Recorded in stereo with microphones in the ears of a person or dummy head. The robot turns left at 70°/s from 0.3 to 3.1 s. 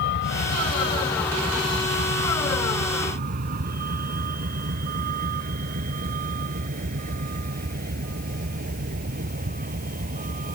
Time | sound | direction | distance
0.0 | a vehicle | 70° left (ahead or behind) | ?